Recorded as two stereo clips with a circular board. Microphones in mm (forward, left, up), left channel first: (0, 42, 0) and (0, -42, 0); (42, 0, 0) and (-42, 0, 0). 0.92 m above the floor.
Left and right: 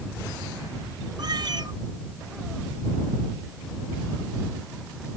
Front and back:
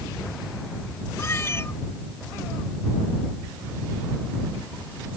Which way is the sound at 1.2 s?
60° right.